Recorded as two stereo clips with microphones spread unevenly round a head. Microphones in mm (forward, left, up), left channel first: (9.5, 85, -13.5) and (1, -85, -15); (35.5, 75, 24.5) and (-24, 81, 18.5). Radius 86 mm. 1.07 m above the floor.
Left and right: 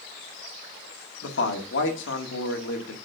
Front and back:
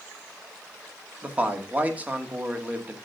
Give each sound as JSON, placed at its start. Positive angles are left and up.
{"t": 1.2, "sound": "a man speaking", "azimuth_deg": 110, "distance_m": 1.9}